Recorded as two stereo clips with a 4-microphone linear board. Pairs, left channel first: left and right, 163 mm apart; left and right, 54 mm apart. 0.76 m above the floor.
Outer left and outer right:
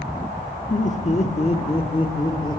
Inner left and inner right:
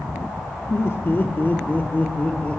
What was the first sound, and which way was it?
Laughter, 50° left (ahead or behind).